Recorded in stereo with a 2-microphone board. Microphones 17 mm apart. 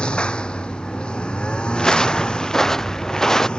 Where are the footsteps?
30° left (ahead or behind); by 3.5 s 25° left (ahead or behind).